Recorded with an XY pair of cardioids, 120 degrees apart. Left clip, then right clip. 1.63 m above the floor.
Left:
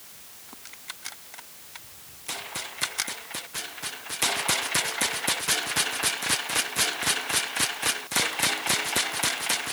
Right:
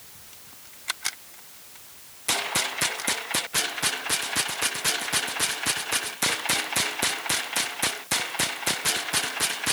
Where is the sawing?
No sawing in this recording.